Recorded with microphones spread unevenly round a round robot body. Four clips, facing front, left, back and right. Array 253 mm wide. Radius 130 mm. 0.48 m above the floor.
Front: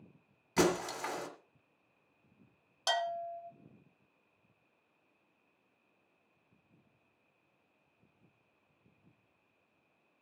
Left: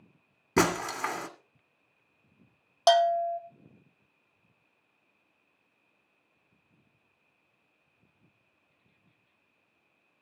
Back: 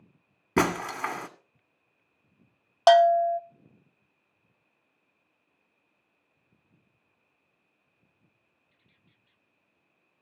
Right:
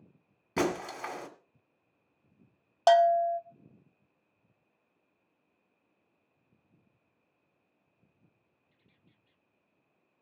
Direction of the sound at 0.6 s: 150° left.